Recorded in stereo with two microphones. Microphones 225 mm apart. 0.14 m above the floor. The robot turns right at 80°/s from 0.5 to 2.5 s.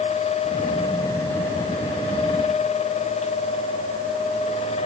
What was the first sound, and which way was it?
Only background noise.